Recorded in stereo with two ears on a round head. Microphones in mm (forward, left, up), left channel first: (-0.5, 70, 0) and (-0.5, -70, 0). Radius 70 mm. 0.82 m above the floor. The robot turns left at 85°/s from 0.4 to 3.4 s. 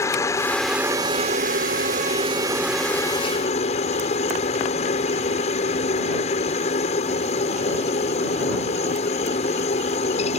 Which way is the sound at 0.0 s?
20° left.